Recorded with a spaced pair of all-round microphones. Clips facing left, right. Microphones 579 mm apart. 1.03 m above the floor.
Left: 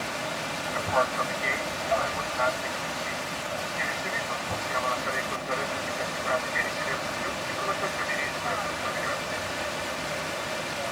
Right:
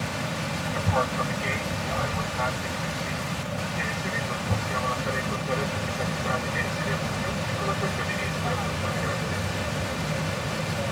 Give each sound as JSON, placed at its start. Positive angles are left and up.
{"t": 0.0, "sound": "an aircraft", "side_deg": -50}